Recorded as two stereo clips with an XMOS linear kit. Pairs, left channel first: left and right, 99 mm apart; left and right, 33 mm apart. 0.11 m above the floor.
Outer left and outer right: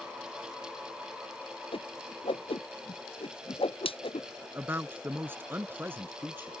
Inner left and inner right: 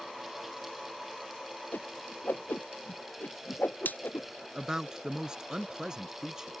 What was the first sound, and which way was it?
A whoosh, 65° left (ahead or behind).